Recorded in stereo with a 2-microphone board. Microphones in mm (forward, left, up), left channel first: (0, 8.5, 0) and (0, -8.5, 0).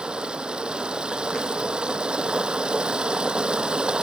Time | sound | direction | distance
0.0 | running water | 65° right (ahead or behind) | ?